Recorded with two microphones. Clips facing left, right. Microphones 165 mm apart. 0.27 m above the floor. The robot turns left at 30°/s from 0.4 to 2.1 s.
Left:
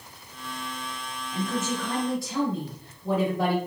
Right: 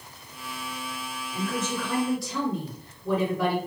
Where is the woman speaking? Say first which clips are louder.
Left 1 dB; 20° left (ahead or behind), 1.5 m; by 3.6 s 25° left (ahead or behind), 1.5 m.